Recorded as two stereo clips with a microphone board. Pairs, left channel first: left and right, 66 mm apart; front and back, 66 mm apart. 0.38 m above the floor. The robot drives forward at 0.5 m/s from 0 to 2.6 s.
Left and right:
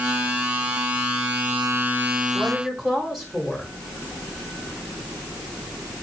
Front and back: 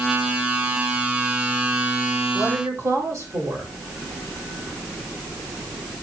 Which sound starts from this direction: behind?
A woman speaking, at 2.3 s.